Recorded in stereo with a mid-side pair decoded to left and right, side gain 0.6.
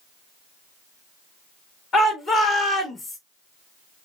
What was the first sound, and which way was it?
A shout, 40° left.